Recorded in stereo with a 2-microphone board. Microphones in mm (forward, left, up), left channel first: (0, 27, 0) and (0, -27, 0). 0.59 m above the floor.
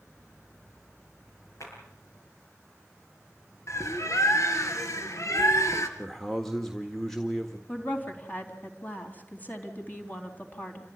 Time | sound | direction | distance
1.6 | a clap | 70° left (ahead or behind) | 9 m
3.7 | a bird | 75° left (ahead or behind) | 2.5 m
6.0 | a man speaking | 5° left (ahead or behind) | 1.7 m
7.7 | a woman speaking | 35° left (ahead or behind) | 4 m